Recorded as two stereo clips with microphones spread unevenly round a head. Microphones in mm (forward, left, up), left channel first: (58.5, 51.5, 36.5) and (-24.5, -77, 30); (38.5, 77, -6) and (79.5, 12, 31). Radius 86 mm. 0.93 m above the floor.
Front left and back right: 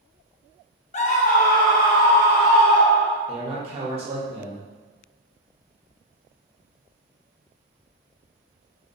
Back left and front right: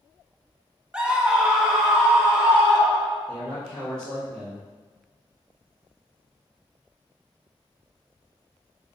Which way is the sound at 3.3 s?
170° right.